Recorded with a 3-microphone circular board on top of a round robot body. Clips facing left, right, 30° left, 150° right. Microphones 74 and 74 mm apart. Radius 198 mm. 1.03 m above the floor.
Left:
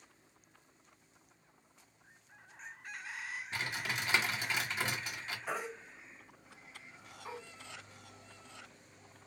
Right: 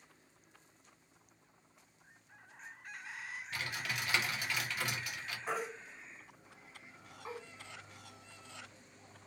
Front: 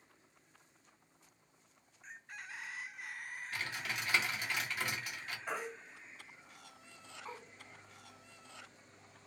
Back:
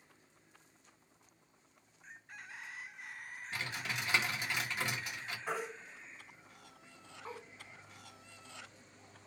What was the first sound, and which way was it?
Typing on a keyboard, 150° left.